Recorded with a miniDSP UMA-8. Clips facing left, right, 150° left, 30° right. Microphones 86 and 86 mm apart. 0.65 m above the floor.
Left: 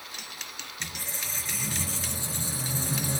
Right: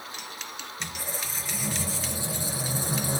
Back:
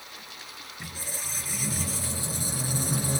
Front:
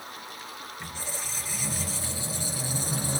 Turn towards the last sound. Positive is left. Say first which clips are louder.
# right 3 dB, even
turn(degrees=-165)